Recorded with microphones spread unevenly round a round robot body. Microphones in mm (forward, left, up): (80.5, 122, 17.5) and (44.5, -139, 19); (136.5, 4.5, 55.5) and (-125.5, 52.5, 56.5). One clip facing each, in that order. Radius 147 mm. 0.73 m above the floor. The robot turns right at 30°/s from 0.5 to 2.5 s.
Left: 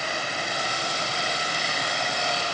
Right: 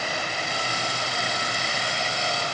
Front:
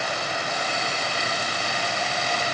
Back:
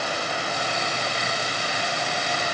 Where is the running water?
80° right, 10 m; by 2.5 s 20° right, 10 m.